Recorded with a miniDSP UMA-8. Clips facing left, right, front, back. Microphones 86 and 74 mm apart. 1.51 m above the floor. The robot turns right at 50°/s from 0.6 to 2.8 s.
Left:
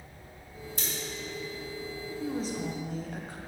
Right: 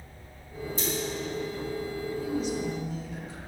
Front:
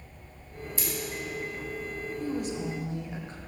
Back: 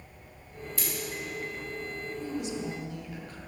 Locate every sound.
0.8 s scissors: 60° left, 2.5 m; by 0.9 s 65° left, 2.5 m
2.2 s a woman speaking: 30° left, 0.9 m; by 3.4 s 60° left, 0.9 m